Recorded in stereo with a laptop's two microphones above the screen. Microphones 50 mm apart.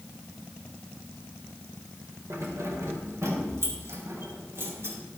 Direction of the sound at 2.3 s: 80° right.